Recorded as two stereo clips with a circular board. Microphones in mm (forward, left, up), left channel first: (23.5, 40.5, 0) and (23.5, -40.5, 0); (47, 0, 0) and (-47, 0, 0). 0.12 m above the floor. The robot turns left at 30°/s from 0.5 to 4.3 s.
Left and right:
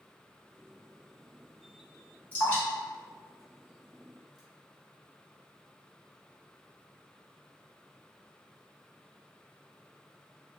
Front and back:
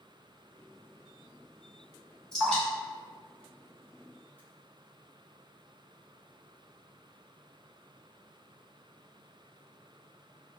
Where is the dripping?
65° left, 1.2 m; by 4.4 s 10° left, 1.2 m.